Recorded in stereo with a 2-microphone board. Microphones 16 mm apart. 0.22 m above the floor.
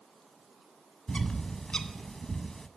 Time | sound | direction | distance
1.1 | a bird | 40° left (ahead or behind) | 0.5 m